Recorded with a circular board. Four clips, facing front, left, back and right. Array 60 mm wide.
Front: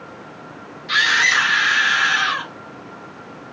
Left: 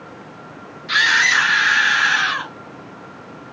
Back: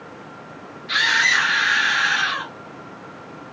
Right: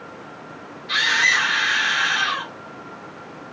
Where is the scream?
55° left, 1.7 m.